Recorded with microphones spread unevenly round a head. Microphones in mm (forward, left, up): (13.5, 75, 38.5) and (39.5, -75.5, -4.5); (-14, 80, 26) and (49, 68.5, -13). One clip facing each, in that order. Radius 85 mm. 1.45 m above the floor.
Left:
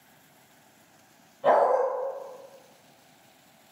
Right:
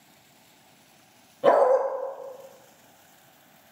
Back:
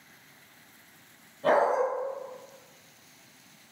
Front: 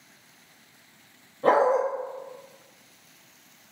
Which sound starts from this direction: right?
A dog barking, at 1.4 s.